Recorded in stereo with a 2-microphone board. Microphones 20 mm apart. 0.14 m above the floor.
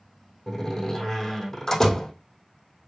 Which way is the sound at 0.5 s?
25° left (ahead or behind).